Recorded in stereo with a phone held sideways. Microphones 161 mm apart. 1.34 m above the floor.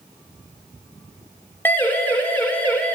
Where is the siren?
15° left (ahead or behind), 5 m; by 3.0 s 10° left (ahead or behind), 6 m.